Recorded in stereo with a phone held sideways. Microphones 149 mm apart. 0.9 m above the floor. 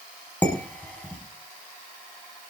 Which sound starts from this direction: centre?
Dishes clattering, at 0.4 s.